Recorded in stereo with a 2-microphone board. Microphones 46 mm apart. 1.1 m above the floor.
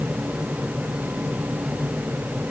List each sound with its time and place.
Only background noise.